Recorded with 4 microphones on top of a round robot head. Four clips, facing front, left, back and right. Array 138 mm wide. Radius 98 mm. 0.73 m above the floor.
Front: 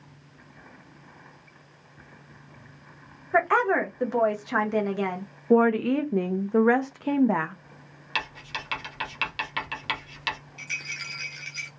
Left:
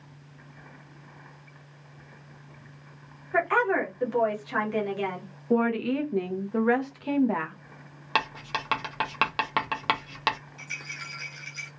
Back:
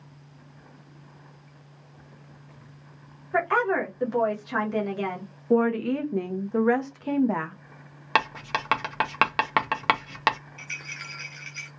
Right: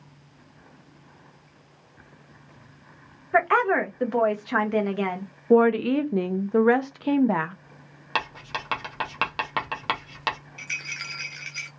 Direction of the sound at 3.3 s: 65° right.